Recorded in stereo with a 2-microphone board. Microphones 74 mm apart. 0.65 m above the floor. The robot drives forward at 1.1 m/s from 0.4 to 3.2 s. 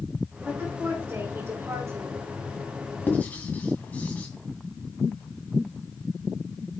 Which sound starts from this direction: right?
A woman speaking, at 0.4 s.